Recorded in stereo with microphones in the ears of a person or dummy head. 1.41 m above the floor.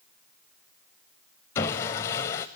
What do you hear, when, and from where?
1.6 s sawing: 15° left (ahead or behind), 1.3 m